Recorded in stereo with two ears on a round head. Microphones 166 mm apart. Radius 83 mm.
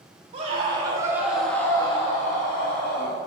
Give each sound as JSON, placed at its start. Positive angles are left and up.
{"t": 0.3, "sound": "a scream", "side_deg": -35, "distance_m": 2.0}